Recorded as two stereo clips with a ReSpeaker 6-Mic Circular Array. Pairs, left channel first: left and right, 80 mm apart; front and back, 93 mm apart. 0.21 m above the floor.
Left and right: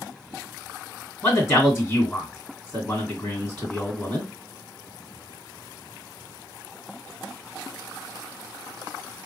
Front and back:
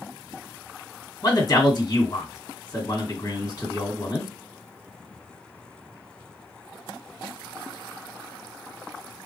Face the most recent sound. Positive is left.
turn(degrees=25)